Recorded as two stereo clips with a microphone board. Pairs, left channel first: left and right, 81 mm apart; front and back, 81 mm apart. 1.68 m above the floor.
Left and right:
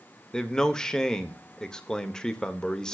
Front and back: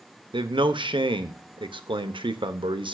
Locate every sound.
0.3 s a man speaking: 170° left, 1.1 m